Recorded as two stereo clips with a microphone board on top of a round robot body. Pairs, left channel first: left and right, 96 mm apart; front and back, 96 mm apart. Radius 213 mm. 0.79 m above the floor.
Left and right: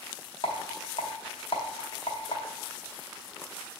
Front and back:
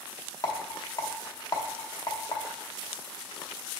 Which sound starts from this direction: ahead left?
A rattle, at 0.4 s.